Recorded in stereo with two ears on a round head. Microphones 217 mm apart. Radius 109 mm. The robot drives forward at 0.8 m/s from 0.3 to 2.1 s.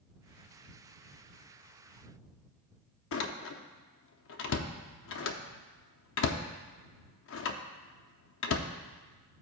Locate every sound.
3.1 s a door slam: 55° left (ahead or behind), 0.6 m